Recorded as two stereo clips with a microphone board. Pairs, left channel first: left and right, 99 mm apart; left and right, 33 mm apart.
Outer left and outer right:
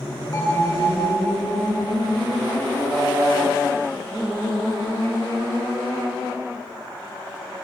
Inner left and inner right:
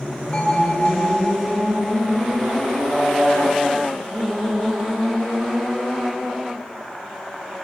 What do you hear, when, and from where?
0.3 s a bell: 50° left (ahead or behind), 8.5 m